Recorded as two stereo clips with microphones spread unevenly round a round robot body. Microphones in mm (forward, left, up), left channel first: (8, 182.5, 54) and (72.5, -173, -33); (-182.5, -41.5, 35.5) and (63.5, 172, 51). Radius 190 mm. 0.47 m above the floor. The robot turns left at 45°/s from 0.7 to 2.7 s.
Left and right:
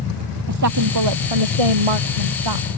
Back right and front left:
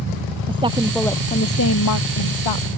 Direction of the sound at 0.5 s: 35° right.